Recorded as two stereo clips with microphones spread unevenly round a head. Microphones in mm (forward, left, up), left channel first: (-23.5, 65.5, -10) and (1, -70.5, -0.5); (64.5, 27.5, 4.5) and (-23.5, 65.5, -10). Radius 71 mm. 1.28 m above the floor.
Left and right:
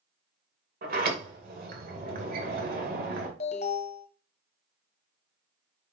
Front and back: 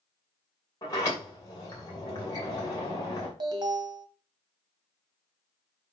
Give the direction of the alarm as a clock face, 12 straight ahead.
8 o'clock.